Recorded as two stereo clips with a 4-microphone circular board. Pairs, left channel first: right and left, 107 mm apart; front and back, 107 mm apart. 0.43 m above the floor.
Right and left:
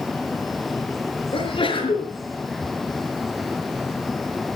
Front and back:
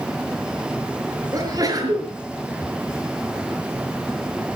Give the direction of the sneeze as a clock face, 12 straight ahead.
4 o'clock.